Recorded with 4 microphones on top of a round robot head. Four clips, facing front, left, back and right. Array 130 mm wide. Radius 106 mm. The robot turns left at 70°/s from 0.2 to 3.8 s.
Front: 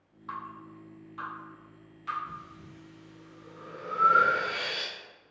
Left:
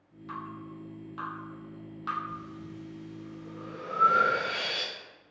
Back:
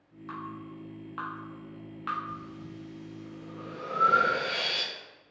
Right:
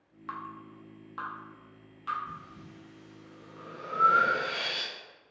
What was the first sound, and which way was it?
Dripping, 85° right.